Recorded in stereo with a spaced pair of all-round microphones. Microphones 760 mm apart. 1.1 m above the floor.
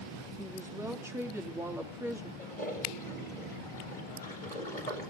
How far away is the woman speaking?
About 3 m.